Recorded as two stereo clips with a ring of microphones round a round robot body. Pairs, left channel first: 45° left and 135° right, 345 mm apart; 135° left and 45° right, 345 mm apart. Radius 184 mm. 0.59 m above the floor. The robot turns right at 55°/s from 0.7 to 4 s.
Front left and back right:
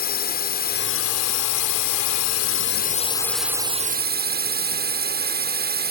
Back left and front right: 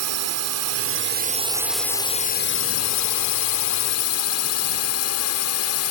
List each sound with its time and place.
0.0 s a drone: 15° right; by 5.9 s 170° left